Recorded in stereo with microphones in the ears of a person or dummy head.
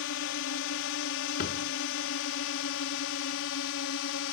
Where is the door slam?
50° left (ahead or behind).